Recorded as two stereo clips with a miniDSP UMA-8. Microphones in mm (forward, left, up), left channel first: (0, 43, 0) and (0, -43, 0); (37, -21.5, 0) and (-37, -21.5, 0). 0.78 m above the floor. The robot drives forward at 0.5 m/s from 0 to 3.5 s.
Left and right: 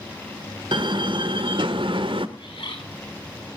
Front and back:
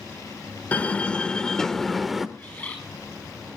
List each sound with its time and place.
0.7 s a door slam: 70° right, 1.9 m; by 2.3 s 90° right, 1.8 m
2.4 s a bird: 70° left, 6.5 m